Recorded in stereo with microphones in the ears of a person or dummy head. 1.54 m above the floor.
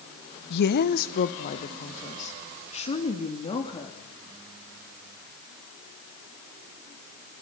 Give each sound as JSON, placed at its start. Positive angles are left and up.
{"t": 0.5, "sound": "a woman speaking", "side_deg": 65, "distance_m": 1.0}